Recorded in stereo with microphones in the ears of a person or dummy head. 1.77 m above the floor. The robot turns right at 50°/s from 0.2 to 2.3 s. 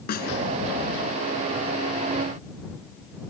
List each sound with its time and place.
0.1 s a snare drum: 50° left (ahead or behind); by 0.3 s 45° left (ahead or behind)